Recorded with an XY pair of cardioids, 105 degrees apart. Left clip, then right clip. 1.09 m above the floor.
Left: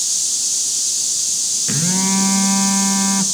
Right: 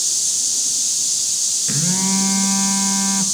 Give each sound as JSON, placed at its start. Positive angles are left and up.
{"t": 1.7, "sound": "a phone buzzing", "azimuth_deg": 20, "distance_m": 0.9}